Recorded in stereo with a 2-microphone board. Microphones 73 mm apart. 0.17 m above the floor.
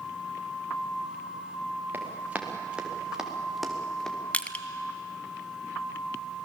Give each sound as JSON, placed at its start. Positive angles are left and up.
{"t": 1.9, "sound": "running footsteps", "side_deg": -25, "distance_m": 4.0}
{"t": 4.3, "sound": "crushing", "side_deg": 20, "distance_m": 0.9}